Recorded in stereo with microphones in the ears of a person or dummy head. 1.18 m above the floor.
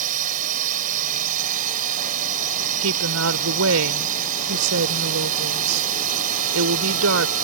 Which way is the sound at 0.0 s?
45° right (ahead or behind).